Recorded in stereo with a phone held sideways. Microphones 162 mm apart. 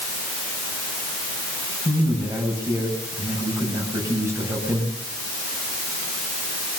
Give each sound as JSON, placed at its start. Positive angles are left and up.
{"t": 1.9, "sound": "a man speaking", "side_deg": -20, "distance_m": 8.0}